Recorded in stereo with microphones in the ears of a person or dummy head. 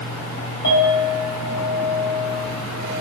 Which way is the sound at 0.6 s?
55° left (ahead or behind).